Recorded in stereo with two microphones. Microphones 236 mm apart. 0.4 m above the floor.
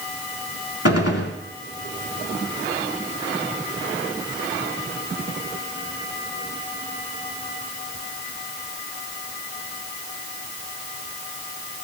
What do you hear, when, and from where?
0.8 s a gunshot: 80° left, 0.9 m